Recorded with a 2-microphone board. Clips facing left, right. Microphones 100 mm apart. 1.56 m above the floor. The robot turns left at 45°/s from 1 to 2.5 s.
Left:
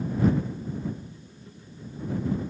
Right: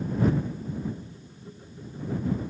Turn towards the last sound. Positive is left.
No sound to turn to.